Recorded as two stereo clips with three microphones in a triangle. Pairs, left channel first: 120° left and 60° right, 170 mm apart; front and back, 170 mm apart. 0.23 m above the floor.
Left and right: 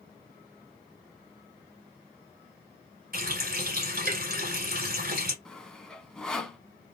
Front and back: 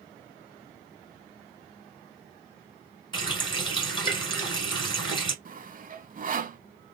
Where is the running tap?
60° right, 1.3 m.